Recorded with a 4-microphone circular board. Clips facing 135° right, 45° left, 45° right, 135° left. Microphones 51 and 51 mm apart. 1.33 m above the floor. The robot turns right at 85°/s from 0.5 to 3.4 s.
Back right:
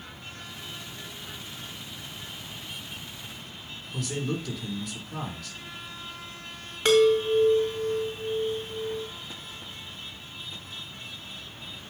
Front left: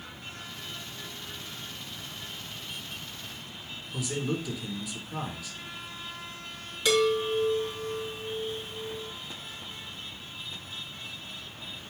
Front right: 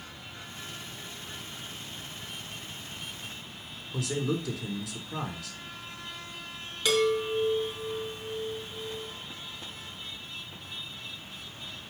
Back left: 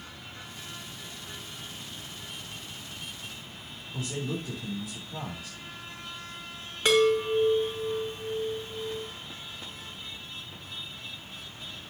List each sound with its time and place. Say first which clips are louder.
3.9 s a man speaking: even, front right 4 dB; 40° right, 3.5 m
6.8 s a chime: back right 5 dB, back left 3 dB; 170° right, 3.5 m